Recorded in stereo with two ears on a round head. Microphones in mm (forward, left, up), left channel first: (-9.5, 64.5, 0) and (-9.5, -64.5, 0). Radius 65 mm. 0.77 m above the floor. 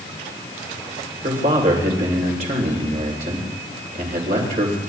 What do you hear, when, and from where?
1.2 s a man speaking: 55° right (ahead or behind), 3 m